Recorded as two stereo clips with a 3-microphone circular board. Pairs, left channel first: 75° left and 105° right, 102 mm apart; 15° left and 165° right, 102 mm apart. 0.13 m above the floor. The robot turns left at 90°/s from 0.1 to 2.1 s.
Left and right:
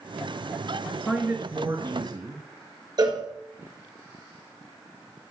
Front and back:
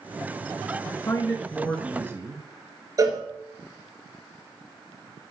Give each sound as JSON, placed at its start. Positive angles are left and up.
{"t": 0.9, "sound": "a man speaking", "azimuth_deg": -5, "distance_m": 1.6}
{"t": 3.0, "sound": "a cowbell", "azimuth_deg": -125, "distance_m": 1.8}